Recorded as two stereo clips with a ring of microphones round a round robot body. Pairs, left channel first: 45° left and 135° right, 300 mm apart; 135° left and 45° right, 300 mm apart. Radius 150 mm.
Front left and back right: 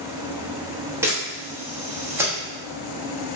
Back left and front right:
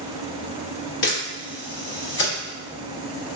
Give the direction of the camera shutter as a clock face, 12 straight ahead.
7 o'clock.